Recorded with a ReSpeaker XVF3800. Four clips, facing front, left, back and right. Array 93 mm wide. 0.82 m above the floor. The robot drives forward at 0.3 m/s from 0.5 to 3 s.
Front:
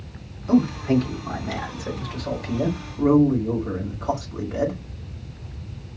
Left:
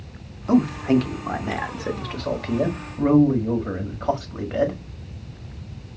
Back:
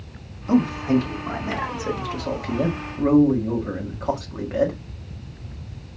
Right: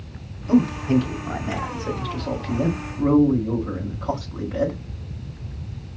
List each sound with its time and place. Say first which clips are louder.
0.5 s a man speaking: even, even; 95° left, 1.4 m; by 4.8 s 125° left, 1.6 m